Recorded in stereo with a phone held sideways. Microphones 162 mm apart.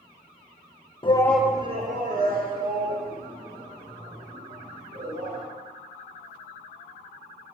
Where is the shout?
35° left (ahead or behind), 0.9 m; by 5.4 s 80° right, 5.5 m.